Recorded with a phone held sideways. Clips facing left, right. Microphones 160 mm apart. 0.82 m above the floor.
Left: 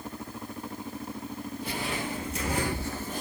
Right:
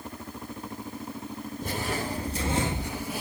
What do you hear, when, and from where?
1.6 s footsteps: 45° right (ahead or behind), 1.1 m; by 3.2 s 5° right (ahead or behind), 1.1 m